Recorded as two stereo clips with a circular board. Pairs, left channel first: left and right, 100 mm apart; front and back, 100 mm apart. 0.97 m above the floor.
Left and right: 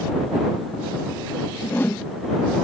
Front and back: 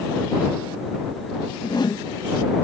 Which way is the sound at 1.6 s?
30° left.